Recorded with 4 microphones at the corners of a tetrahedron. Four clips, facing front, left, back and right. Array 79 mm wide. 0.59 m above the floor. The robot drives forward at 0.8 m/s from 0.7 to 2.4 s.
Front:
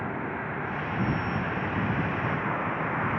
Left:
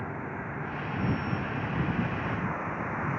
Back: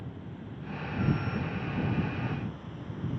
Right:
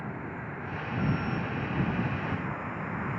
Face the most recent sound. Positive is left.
turn(degrees=15)